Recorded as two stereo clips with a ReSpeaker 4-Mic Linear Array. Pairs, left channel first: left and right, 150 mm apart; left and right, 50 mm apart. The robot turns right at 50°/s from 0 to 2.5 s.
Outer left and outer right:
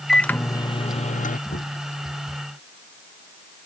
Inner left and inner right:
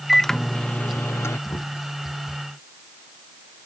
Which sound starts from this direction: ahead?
A microwave, at 0.1 s.